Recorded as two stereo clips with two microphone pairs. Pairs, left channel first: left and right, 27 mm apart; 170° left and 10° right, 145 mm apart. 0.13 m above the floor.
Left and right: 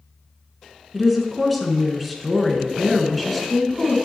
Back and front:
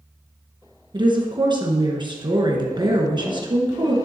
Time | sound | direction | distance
0.9 | a woman speaking | 5° right | 1.4 m